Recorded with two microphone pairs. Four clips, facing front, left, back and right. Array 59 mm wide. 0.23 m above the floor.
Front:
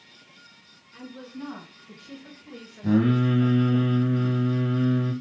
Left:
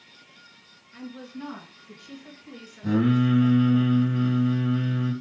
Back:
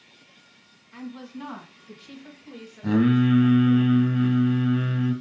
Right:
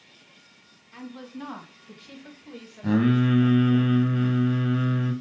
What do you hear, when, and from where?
0.9 s a woman speaking: 130° right, 1.8 m; by 3.8 s 15° left, 1.2 m
2.8 s singing: 125° right, 1.3 m